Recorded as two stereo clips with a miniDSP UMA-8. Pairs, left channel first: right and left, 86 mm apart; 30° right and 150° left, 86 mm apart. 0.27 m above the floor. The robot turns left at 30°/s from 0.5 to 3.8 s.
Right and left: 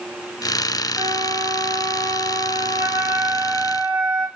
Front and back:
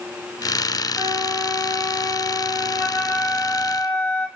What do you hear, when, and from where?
0.9 s a flute: 105° left, 2 m; by 4.3 s 20° left, 2 m